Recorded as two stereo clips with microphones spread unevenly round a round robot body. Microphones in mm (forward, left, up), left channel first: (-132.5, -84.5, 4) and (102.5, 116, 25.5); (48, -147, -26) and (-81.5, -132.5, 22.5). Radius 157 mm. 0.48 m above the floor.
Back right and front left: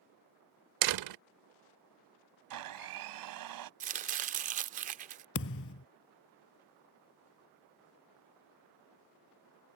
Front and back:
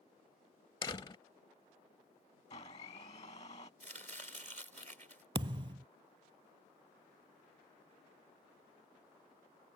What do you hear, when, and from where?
0.8 s a door slam: 60° left
2.5 s a blender: 65° left
3.8 s chopping: 105° left
5.3 s a thud: 175° left